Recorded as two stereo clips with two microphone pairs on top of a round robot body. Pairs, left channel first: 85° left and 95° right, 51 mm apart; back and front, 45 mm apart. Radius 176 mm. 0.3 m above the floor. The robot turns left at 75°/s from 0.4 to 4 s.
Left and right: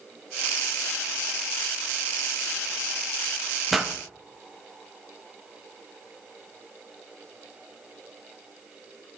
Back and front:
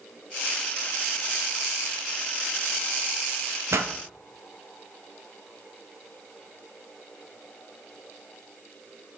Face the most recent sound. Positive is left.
turn(degrees=-25)